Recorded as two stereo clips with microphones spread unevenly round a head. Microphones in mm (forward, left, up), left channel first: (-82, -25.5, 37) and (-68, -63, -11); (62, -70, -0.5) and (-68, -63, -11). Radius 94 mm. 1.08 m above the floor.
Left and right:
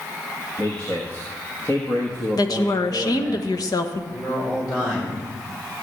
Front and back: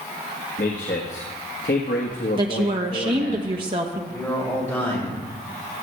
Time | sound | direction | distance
0.6 | a man speaking | 30° left | 1.3 m
2.4 | a woman speaking | 120° left | 1.2 m
4.1 | a man speaking | 70° left | 5.5 m